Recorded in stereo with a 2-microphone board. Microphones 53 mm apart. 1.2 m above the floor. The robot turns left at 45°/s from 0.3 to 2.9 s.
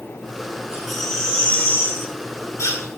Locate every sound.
0.7 s a baby crying: 170° right, 4.5 m; by 2.9 s 95° left, 4.5 m